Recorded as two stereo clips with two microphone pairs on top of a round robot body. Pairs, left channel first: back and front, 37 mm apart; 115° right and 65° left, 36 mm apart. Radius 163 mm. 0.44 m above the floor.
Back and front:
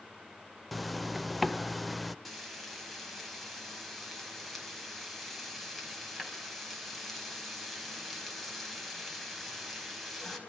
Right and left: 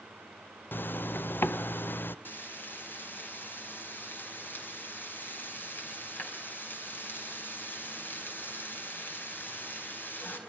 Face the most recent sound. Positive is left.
turn(degrees=-95)